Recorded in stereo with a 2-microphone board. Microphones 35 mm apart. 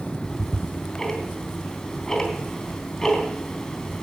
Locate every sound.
0.2 s ticking: 10° left (ahead or behind), 3 m